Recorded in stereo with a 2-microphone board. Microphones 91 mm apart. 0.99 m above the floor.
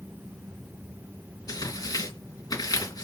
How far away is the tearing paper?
About 3 m.